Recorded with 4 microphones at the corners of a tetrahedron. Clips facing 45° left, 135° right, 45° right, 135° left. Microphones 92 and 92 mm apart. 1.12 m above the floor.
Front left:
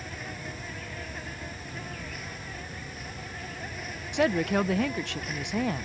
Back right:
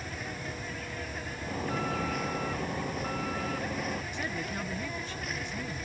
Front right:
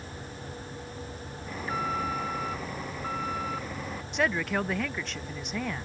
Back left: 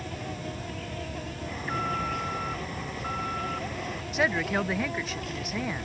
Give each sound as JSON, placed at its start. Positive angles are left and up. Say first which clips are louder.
{"t": 0.0, "sound": "an insect", "louder": "back right 1 dB, back left 6 dB", "azimuth_deg": 135}
{"t": 1.5, "sound": "an alarm", "louder": "back right 8 dB, even", "azimuth_deg": -130}
{"t": 4.1, "sound": "a woman speaking", "louder": "front left 11 dB, back left 1 dB", "azimuth_deg": 50}